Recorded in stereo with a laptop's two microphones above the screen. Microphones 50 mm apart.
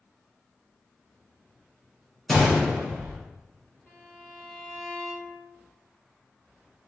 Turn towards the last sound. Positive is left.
turn(degrees=15)  # may be behind; listen again after turning